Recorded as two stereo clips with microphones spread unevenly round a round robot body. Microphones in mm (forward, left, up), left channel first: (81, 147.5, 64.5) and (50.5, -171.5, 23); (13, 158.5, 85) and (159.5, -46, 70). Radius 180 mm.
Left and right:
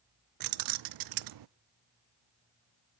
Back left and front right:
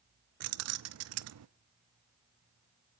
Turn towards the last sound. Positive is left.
turn(degrees=-80)